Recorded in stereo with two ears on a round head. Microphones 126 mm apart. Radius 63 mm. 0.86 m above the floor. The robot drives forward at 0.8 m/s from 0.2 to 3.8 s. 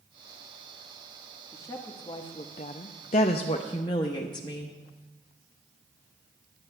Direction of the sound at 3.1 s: 50° left (ahead or behind).